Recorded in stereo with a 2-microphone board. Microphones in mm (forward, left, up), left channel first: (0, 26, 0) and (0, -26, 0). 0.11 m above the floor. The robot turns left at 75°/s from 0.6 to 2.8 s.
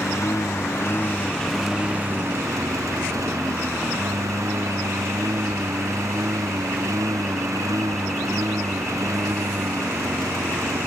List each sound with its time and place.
0.0 s a lawn mower: 75° left; by 10.9 s 90° right